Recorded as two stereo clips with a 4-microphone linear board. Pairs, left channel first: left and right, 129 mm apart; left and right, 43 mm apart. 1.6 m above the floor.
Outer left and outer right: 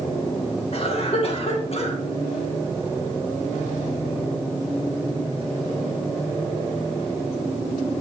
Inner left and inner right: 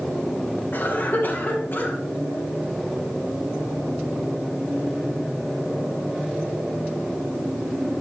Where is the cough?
50° left (ahead or behind), 2.5 m.